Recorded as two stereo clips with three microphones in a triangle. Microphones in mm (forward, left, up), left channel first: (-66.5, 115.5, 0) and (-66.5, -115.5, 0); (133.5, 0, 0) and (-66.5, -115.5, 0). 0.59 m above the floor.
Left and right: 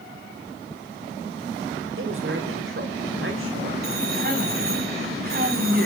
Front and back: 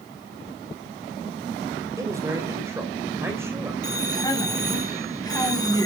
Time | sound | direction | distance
2.0 | a man speaking | 75° right | 2.5 m
3.8 | a man speaking | 45° right | 4.5 m